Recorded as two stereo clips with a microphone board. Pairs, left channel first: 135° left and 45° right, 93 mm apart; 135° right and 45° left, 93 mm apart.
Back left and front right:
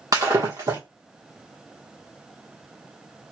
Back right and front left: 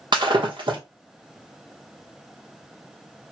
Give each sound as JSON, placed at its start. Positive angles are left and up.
{"t": 0.1, "sound": "breaking glass", "azimuth_deg": 5, "distance_m": 1.1}